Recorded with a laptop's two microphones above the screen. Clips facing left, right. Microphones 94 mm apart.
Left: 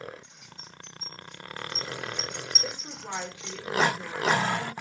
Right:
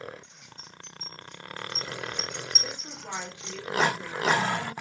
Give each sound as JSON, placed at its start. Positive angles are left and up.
{"t": 0.2, "sound": "keys jangling", "side_deg": 15, "distance_m": 5.0}
{"t": 2.6, "sound": "a woman speaking", "side_deg": 15, "distance_m": 3.5}